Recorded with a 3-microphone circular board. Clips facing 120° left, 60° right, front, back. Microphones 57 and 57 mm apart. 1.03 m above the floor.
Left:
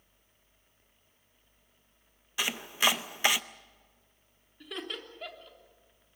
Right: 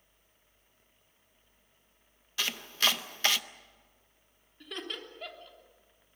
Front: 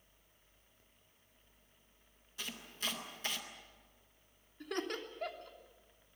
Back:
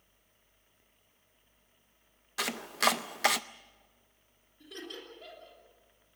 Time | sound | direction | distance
2.4 | chopping | 170° right | 0.6 m
4.6 | laughter | 30° left | 3.5 m